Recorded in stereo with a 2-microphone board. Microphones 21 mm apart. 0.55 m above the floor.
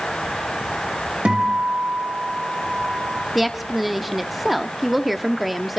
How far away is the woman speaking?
About 1.0 m.